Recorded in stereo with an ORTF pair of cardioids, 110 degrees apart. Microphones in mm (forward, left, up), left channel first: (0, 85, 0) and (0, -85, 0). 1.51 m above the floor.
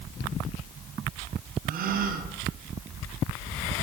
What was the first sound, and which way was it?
A gasp, 60° right.